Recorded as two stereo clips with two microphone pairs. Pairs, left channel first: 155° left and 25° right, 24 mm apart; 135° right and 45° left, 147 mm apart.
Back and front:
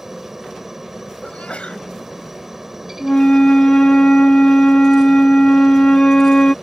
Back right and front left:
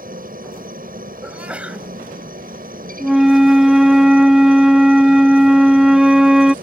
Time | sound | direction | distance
0.0 | a helicopter | 45° left | ?
1.2 | a sneeze | 130° left | ?
3.0 | a flute | 130° left | ?